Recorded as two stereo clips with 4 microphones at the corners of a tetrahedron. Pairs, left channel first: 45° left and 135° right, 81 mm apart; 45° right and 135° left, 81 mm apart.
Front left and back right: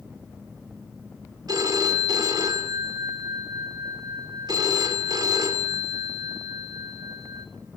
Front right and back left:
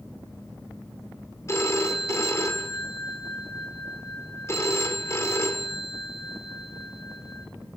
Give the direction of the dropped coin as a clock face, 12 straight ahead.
No dropped coin in this recording.